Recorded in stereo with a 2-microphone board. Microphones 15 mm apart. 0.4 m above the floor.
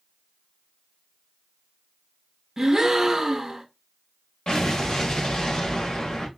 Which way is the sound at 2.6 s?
30° right (ahead or behind).